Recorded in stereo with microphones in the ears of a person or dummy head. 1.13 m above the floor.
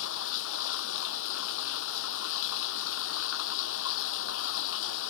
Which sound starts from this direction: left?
Running water, at 0.0 s.